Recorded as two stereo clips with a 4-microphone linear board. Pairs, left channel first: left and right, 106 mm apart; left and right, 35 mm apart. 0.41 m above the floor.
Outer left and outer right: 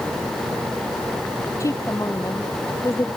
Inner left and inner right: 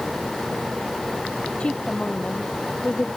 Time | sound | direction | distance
1.6 | a woman speaking | 30° left (ahead or behind) | ?